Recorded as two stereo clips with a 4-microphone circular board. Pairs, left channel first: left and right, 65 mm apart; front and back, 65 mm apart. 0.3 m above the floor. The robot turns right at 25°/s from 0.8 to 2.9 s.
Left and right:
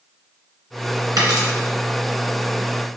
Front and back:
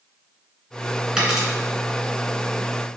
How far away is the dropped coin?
About 1.9 m.